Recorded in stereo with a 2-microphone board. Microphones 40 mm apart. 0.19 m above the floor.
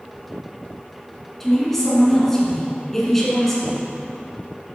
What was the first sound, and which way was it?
A woman speaking, 10° left (ahead or behind).